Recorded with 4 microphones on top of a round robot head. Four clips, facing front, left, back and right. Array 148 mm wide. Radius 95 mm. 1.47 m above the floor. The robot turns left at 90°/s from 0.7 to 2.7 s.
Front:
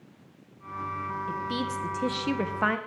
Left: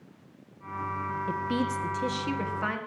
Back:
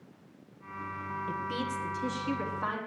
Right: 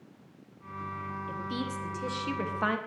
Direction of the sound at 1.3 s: 95° left.